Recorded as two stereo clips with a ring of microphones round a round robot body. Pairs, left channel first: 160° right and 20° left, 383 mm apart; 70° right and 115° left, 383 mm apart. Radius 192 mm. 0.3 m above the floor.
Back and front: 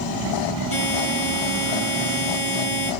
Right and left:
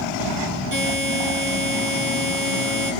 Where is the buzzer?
160° left, 6 m.